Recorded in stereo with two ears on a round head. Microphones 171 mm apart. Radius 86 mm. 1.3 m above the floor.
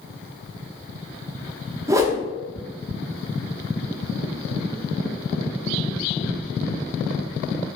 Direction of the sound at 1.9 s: 15° right (ahead or behind).